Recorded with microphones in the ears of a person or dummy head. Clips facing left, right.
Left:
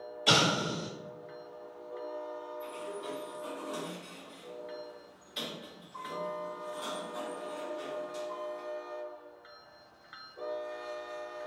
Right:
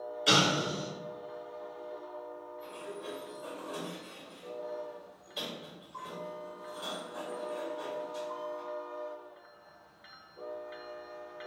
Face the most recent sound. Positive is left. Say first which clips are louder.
# even
turn(degrees=35)  # may be behind; listen again after turning